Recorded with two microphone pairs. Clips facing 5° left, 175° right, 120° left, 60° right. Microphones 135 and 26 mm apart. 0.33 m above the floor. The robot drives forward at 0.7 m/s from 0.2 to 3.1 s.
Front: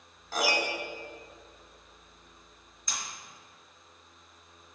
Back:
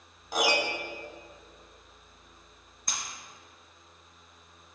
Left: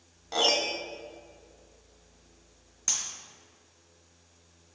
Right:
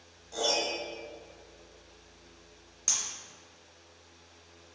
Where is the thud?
I don't hear a thud.